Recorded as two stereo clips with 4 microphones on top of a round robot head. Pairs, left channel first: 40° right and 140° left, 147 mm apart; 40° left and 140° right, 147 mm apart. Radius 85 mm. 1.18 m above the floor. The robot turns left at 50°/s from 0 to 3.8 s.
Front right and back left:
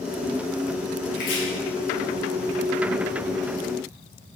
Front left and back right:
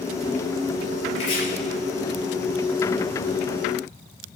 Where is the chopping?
10° right, 1.4 m; by 1.4 s 25° right, 1.4 m.